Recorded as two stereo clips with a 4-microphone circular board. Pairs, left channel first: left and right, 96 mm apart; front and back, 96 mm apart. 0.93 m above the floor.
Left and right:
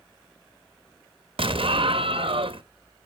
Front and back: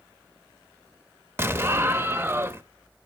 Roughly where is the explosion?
Behind right.